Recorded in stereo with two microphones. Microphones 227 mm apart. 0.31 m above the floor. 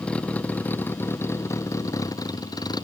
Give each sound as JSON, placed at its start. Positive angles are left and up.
{"t": 0.0, "sound": "a vehicle", "side_deg": 5}